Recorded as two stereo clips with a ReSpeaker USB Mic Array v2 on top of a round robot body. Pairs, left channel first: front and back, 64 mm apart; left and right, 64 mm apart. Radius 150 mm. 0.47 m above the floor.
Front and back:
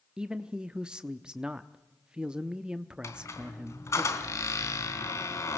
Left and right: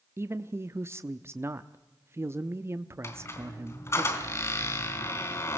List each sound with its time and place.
0.2 s a man speaking: 110° right, 0.9 m
3.0 s a squeak: 45° left, 3.5 m